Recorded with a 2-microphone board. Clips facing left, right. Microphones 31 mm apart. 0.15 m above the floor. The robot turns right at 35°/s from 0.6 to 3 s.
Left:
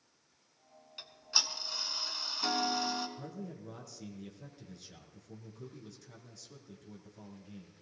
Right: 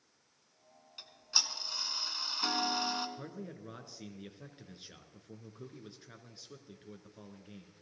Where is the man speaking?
35° right (ahead or behind), 1.7 m.